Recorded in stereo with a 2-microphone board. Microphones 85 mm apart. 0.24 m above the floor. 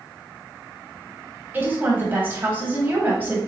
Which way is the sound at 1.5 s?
25° right (ahead or behind).